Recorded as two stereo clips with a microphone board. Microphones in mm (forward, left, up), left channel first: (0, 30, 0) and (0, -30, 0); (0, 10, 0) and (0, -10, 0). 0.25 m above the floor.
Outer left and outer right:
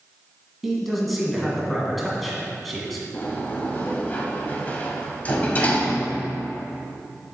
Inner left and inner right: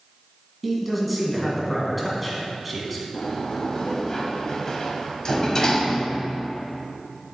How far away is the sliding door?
About 1.1 m.